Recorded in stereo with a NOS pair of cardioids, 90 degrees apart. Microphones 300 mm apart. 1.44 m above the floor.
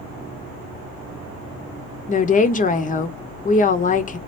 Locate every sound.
2.1 s a woman speaking: 25° left, 0.5 m